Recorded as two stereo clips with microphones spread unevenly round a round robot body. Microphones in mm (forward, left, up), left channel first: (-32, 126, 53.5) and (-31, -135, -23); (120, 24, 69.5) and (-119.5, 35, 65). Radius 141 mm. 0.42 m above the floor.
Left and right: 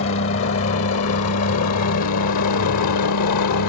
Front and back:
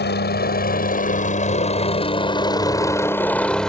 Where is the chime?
I don't hear a chime.